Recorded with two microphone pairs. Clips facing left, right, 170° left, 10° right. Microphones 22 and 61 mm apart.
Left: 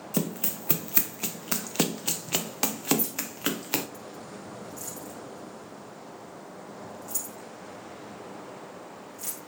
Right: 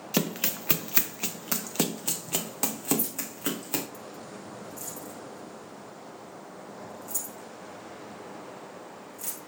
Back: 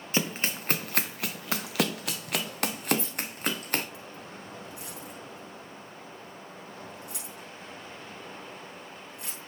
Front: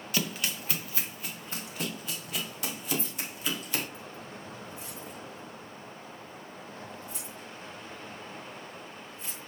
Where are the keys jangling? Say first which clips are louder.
Left 3 dB, back 4 dB; 155° left, 4 m.